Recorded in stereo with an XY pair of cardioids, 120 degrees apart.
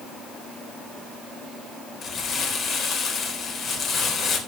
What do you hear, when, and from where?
2.0 s crumpling: 55° left, 4 m